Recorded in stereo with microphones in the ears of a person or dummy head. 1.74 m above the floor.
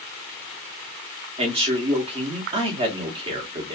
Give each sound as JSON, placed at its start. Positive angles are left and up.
{"t": 1.4, "sound": "a man speaking", "side_deg": -25, "distance_m": 0.7}